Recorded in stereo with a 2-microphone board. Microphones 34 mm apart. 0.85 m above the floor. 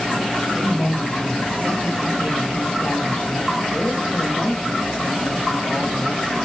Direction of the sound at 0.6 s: 50° left (ahead or behind).